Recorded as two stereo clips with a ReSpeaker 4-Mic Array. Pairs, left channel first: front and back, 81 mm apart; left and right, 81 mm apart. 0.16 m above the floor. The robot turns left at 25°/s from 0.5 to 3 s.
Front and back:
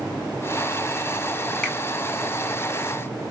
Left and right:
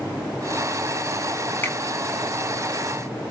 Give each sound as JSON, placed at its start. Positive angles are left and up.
{"t": 1.6, "sound": "a finger snap", "azimuth_deg": 60, "distance_m": 1.3}